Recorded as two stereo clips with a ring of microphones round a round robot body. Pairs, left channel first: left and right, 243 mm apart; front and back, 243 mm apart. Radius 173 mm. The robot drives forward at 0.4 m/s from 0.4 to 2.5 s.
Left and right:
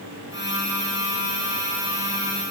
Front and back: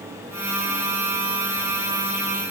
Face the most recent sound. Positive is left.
No sound to turn to.